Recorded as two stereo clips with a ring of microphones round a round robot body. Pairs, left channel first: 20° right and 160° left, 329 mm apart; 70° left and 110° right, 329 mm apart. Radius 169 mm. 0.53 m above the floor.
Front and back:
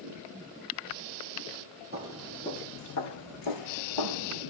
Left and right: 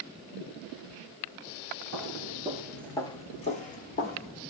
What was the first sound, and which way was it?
Footsteps, 145° right.